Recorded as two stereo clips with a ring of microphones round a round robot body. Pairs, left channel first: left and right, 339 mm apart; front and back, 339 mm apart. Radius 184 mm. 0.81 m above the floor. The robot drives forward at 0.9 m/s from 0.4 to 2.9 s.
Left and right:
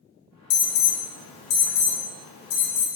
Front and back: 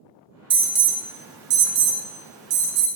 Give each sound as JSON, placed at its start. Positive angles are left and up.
{"t": 0.5, "sound": "an alarm", "azimuth_deg": 105, "distance_m": 1.6}